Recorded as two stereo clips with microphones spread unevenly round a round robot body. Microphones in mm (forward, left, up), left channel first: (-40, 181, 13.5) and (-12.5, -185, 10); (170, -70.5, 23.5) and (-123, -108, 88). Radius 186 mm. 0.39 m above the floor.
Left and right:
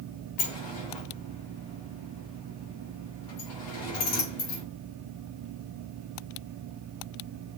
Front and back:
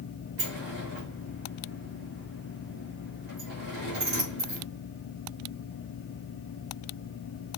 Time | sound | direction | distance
0.4 | a sliding door | 120° left | 4 m